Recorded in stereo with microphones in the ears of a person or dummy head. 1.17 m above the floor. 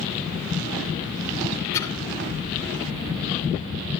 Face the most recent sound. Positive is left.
turn(degrees=15)  # may be behind; listen again after turning